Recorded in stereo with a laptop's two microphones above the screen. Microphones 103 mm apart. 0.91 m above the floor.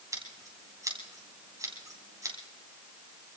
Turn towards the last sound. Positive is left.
turn(degrees=-30)  # may be behind; listen again after turning